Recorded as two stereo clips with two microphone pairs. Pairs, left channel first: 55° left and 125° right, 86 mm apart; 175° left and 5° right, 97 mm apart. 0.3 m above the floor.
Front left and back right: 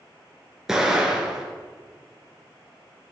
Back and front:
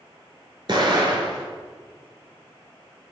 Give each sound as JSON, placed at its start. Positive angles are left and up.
{"t": 0.7, "sound": "an explosion", "azimuth_deg": -40, "distance_m": 1.2}